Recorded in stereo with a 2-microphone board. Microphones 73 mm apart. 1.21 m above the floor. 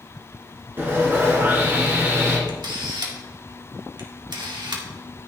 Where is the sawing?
30° right (ahead or behind), 3.5 m.